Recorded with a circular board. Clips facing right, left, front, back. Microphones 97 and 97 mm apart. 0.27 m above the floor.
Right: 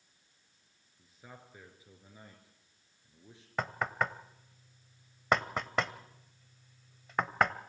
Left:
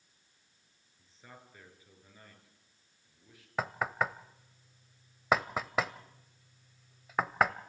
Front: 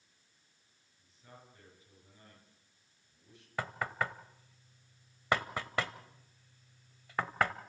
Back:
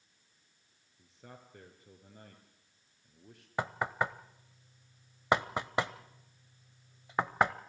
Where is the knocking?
170° left, 0.7 m.